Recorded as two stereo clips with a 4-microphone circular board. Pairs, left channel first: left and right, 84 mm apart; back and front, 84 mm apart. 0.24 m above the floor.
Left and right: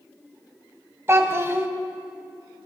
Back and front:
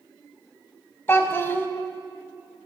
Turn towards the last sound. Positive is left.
turn(degrees=-130)